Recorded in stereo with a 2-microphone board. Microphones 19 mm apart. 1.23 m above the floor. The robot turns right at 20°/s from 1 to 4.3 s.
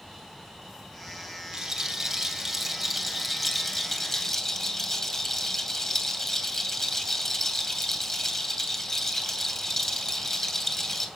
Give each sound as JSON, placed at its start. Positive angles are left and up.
{"t": 1.5, "sound": "a rattle", "azimuth_deg": -30, "distance_m": 2.5}